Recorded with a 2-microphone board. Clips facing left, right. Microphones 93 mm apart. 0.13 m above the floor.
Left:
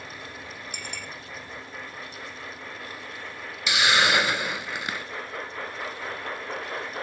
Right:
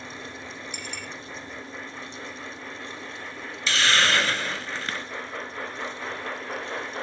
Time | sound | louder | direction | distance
0.7 | a clink | right 1 dB | 50° left (ahead or behind) | 4 m
3.7 | a hiss | left 1 dB | 15° left (ahead or behind) | 0.8 m